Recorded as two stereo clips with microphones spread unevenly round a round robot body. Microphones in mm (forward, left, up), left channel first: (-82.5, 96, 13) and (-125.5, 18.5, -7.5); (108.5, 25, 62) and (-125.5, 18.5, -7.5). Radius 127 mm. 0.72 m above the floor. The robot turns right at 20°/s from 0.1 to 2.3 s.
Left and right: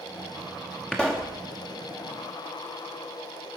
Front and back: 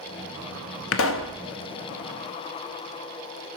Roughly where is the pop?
Ahead right.